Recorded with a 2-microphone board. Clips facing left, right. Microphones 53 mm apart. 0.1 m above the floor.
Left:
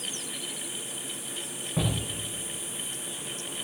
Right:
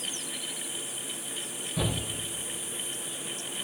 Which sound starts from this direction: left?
A shout, at 1.8 s.